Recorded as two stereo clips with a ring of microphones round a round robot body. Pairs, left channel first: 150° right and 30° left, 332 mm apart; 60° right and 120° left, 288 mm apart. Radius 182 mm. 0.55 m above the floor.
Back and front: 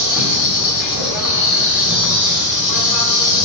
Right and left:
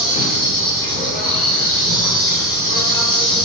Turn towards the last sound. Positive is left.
turn(degrees=-135)